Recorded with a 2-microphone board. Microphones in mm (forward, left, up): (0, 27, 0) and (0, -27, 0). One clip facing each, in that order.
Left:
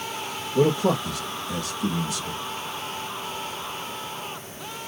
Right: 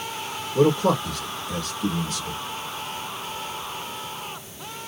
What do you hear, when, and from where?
0.6 s a man speaking: 10° left (ahead or behind), 4 m